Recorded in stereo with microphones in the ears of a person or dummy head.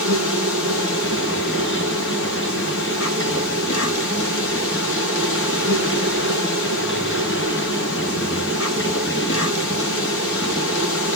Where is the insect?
70° left (ahead or behind), 3 m.